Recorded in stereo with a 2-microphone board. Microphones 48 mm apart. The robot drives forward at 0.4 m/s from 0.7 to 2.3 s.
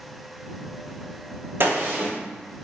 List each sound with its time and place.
1.6 s a gunshot: 55° right (ahead or behind), 1.1 m; by 2.1 s 50° right (ahead or behind), 1.1 m